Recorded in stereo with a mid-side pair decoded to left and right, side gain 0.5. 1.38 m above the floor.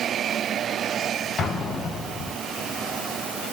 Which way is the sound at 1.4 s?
40° left.